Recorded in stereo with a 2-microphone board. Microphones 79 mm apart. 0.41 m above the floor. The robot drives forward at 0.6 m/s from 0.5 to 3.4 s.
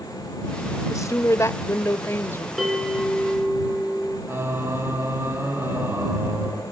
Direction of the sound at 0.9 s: 45° left (ahead or behind).